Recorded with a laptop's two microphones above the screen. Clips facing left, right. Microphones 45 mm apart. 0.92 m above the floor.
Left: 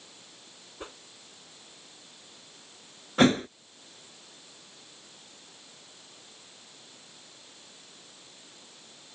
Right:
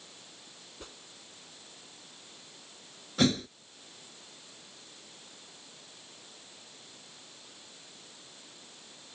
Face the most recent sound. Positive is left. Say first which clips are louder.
# left 6 dB
turn(degrees=40)  # may be behind; listen again after turning